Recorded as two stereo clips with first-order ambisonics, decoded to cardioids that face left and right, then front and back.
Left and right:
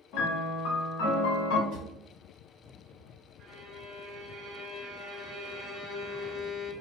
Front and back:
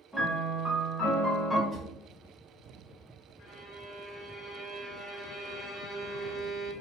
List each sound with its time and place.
0.1 s a piano: 85° left, 0.6 m
1.7 s a drawer: 100° right, 1.0 m
3.4 s a violin: 35° right, 1.0 m